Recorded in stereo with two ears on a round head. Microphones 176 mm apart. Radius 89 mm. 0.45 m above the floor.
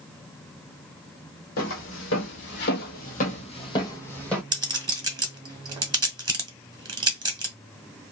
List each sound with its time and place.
1.6 s footsteps: 75° left (ahead or behind), 1.2 m; by 4.4 s 5° left (ahead or behind), 1.0 m
4.5 s a clink: 20° right (ahead or behind), 0.9 m